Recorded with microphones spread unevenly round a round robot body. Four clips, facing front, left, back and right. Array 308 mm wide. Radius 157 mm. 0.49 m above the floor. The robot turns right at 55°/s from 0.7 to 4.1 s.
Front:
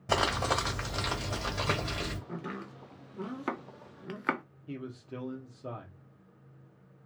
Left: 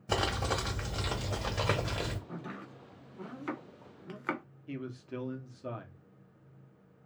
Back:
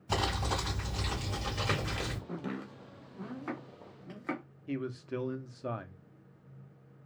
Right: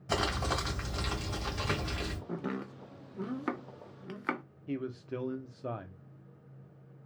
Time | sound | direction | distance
0.1 | crumpling | 35° left | 2.0 m
2.3 | chopping | 115° right | 0.7 m
4.7 | a man speaking | 130° right | 0.7 m